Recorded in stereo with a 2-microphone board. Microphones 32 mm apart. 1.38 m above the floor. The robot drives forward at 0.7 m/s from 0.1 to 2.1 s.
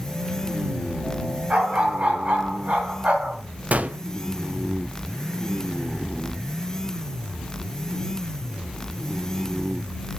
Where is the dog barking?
40° right (ahead or behind), 4 m; by 3.4 s 45° right (ahead or behind), 3.5 m.